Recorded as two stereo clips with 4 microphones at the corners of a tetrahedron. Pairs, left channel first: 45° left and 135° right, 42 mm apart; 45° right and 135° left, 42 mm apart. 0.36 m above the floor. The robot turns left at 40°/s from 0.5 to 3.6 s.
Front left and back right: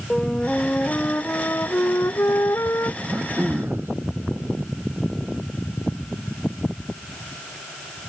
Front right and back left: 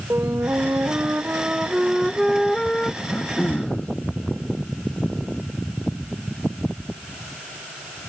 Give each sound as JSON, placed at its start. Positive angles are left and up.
{"t": 0.1, "sound": "a flute", "azimuth_deg": 120}
{"t": 3.0, "sound": "throat clearing", "azimuth_deg": -80}